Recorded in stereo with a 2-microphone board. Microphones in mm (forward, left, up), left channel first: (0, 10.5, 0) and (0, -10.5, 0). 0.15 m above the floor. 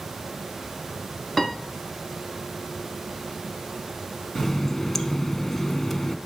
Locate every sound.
1.4 s a piano: 15° left (ahead or behind), 1.3 m
4.3 s a running tap: 15° left (ahead or behind), 0.8 m